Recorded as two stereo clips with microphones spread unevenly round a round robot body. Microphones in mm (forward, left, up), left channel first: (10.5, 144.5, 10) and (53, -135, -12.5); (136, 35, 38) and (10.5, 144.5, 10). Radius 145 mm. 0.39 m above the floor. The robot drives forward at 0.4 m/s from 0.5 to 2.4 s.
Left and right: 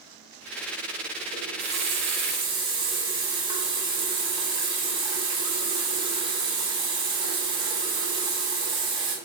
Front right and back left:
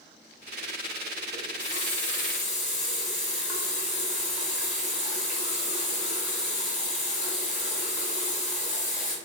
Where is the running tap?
95° right, 0.7 m; by 9.2 s 145° right, 0.8 m.